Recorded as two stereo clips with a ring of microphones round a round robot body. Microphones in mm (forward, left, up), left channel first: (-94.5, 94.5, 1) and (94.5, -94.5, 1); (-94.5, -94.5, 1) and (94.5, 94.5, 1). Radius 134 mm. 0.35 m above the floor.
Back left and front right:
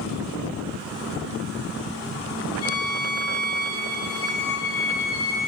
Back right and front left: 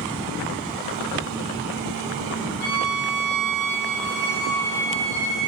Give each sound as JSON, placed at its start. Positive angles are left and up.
{"t": 2.6, "sound": "a violin", "azimuth_deg": -165, "distance_m": 1.9}